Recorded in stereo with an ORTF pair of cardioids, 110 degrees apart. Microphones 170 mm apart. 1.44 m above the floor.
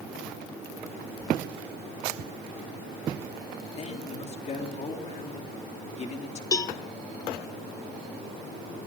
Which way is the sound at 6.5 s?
25° left.